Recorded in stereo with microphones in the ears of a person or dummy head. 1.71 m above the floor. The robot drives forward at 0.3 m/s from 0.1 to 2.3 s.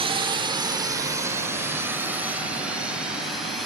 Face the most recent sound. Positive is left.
turn(degrees=-5)  # may be behind; listen again after turning